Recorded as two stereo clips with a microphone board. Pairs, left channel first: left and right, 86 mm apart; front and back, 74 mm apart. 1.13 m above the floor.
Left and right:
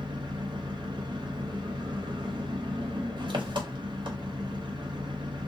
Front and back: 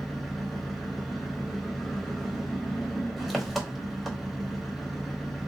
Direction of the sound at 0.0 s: 90° right.